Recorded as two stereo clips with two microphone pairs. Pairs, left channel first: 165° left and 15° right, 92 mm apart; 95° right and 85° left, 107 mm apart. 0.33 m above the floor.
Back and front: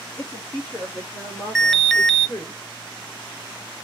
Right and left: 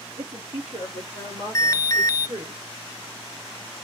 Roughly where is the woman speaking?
Left.